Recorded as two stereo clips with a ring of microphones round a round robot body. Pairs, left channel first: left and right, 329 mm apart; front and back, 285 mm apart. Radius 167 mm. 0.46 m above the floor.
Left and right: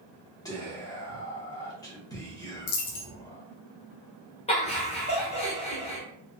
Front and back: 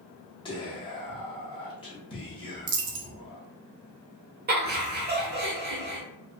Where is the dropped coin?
125° left, 0.5 m.